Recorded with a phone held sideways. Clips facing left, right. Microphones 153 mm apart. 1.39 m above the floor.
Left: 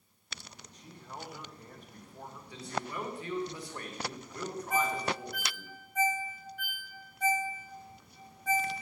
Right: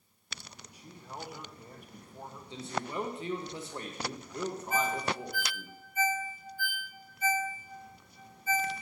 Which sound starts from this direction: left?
A ringtone, at 4.7 s.